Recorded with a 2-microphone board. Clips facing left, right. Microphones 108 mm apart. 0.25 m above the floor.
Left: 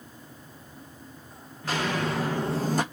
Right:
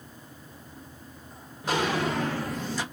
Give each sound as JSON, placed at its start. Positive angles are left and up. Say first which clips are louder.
{"t": 1.6, "sound": "footsteps", "louder": "right 2 dB", "side_deg": -15, "distance_m": 1.1}